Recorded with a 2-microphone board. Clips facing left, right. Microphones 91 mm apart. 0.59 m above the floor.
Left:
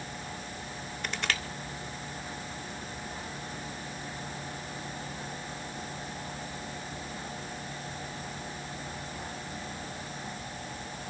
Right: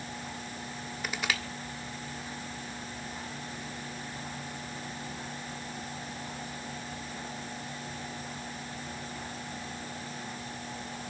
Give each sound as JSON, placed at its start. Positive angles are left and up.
{"t": 1.0, "sound": "crushing", "side_deg": -5, "distance_m": 1.5}